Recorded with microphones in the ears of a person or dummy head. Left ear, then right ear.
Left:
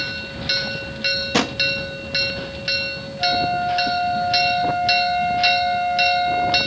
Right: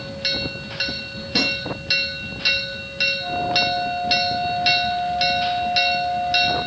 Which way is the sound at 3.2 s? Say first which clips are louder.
Left 1 dB; 50° left (ahead or behind).